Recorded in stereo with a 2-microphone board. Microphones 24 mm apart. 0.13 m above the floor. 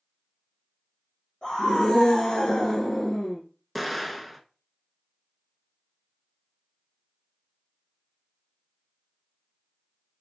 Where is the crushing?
No crushing in this recording.